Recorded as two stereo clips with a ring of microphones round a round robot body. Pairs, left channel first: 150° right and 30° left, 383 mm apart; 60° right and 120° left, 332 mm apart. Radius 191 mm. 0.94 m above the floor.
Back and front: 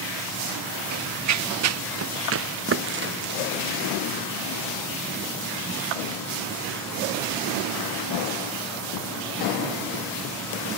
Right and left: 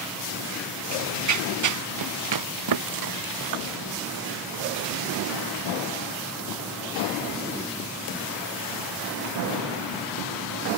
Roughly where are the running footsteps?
Left.